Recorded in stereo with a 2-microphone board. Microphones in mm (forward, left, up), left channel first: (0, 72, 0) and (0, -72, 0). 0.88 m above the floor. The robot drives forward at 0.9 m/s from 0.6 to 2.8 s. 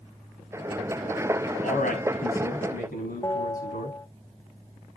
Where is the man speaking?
70° left (ahead or behind), 6 m; by 4.0 s 80° left, 6 m.